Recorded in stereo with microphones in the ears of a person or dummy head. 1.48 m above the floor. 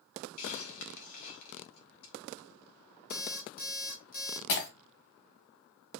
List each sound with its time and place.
0.4 s a hiss: 80° left, 1.3 m
3.1 s an alarm clock: 40° left (ahead or behind), 1.4 m
4.5 s breaking glass: 55° left (ahead or behind), 1.8 m